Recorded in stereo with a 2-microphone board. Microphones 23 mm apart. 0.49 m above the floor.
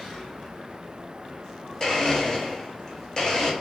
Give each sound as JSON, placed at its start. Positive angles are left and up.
{"t": 1.8, "sound": "a blender", "side_deg": 25, "distance_m": 0.8}